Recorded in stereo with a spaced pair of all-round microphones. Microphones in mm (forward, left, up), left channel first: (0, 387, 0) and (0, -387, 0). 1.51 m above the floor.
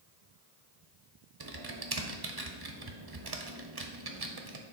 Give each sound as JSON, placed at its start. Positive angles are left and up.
{"t": 1.4, "sound": "typing on a keyboard", "side_deg": -35, "distance_m": 0.7}